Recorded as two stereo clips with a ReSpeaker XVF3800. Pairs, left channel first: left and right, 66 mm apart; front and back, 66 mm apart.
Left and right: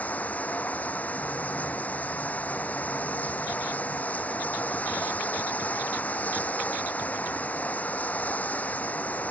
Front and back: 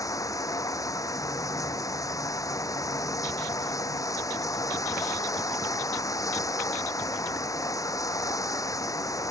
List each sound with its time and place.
0.0 s running water: 25° left